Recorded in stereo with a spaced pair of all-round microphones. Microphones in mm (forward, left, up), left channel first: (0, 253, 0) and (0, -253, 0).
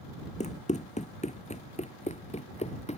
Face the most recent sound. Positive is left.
turn(degrees=15)  # may be behind; listen again after turning